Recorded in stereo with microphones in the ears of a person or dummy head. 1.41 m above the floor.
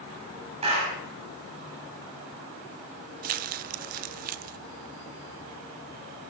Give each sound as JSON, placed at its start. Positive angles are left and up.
{"t": 0.6, "sound": "a clap", "side_deg": -40, "distance_m": 7.0}
{"t": 3.2, "sound": "crumpling", "side_deg": -40, "distance_m": 0.7}